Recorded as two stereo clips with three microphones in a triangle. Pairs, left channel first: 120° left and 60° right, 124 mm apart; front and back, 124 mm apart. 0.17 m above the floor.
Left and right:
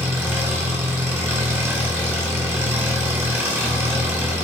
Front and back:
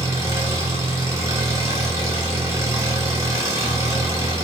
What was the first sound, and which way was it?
An engine running, 125° right.